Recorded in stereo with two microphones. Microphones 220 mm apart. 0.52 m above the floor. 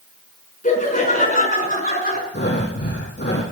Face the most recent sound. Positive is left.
turn(degrees=50)  # may be behind; listen again after turning